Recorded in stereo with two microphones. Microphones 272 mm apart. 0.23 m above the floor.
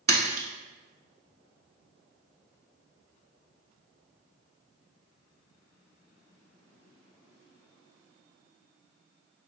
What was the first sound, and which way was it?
A splash, 55° right (ahead or behind).